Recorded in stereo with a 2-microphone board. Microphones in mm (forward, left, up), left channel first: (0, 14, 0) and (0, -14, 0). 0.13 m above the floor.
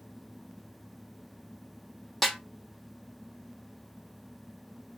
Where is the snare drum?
5° left (ahead or behind), 0.6 m.